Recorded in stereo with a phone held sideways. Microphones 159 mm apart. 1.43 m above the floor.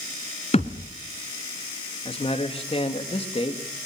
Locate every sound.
0.5 s a thud: 45° left (ahead or behind), 1.8 m
2.0 s a man speaking: 40° left (ahead or behind), 2.5 m